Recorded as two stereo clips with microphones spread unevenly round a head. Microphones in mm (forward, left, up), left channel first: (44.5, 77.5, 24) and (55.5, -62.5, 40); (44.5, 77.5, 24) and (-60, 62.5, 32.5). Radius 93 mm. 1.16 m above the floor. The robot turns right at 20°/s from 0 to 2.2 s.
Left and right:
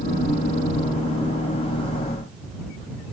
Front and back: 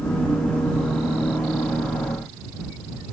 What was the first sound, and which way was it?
Only background noise.